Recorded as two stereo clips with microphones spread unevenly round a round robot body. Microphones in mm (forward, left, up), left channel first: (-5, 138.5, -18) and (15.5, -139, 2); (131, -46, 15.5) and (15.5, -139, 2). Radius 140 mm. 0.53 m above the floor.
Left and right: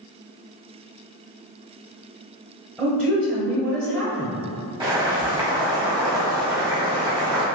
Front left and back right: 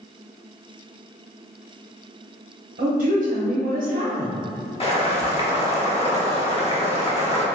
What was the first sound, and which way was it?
A woman speaking, 170° right.